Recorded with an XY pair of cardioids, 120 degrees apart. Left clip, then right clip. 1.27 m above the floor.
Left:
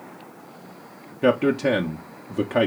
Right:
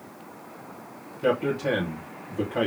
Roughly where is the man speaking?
Ahead left.